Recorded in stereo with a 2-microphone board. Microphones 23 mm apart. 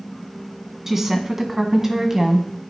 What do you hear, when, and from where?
0.9 s a woman speaking: 20° right (ahead or behind), 1.8 m; by 2.5 s 25° right (ahead or behind), 1.4 m